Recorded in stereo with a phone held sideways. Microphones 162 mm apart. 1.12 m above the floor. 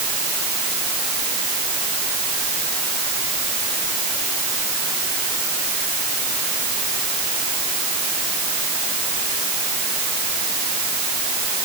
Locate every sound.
Only background noise.